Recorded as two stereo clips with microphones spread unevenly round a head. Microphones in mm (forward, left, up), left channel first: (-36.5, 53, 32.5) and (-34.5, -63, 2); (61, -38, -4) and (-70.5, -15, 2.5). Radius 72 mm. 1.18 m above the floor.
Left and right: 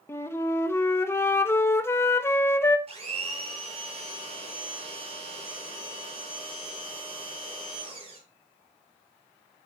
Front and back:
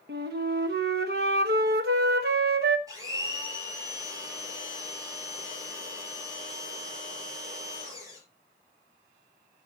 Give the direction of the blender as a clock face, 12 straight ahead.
4 o'clock.